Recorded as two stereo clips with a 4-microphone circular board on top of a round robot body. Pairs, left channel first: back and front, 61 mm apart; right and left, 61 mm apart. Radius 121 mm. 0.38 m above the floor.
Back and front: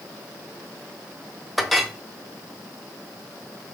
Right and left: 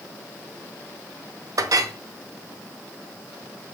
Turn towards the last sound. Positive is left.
turn(degrees=90)